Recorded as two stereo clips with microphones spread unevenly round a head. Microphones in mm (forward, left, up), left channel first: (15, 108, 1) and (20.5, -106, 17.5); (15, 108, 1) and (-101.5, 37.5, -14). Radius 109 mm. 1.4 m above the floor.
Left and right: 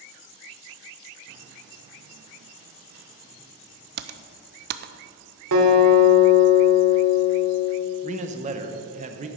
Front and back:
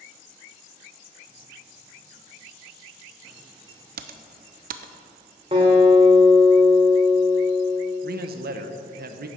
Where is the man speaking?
150° right, 0.9 m.